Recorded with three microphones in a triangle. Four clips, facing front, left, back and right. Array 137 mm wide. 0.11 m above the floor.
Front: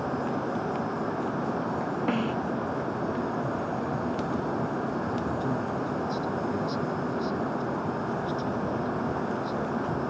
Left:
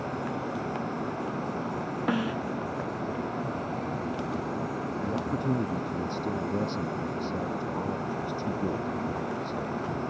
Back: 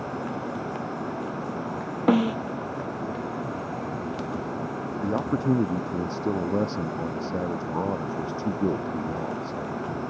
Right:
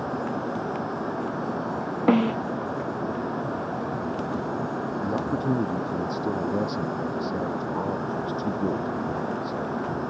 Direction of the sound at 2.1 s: 130° right.